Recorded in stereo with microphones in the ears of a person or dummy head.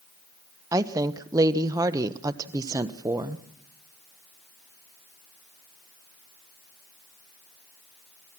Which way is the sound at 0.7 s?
20° right (ahead or behind).